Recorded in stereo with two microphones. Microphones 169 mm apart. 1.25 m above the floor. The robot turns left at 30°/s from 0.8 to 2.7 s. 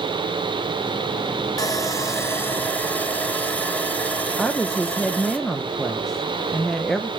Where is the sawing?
20° left (ahead or behind), 1.1 m; by 5.4 s 10° left (ahead or behind), 1.1 m.